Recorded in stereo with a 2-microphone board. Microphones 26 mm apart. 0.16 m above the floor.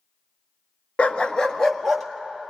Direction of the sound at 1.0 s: 50° left (ahead or behind).